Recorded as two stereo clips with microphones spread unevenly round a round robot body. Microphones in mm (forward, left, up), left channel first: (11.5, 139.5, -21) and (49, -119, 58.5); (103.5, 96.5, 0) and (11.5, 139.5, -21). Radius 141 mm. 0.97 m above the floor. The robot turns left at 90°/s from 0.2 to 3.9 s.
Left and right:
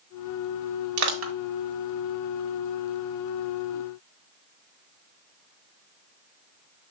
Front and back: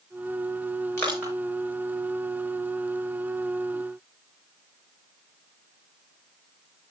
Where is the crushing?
95° right, 2 m; by 1.3 s 130° right, 2 m.